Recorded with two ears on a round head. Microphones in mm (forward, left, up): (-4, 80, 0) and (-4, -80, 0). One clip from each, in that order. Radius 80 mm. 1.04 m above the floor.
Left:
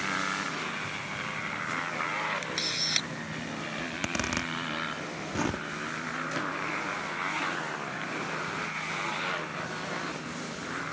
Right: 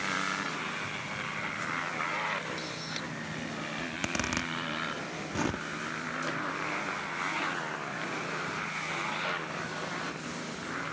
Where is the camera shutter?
60° left (ahead or behind).